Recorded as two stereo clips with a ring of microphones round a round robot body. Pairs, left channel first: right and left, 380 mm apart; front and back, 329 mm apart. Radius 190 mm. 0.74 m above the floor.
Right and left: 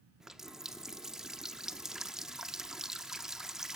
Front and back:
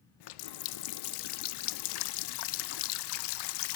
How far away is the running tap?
About 0.7 m.